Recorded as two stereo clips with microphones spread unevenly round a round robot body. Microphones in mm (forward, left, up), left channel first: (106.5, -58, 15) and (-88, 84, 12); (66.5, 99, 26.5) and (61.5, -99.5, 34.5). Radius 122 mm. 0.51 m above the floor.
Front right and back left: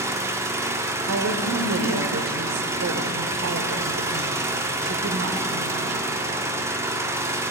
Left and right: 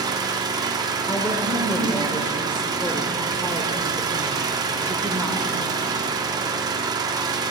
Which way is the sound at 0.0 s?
150° right.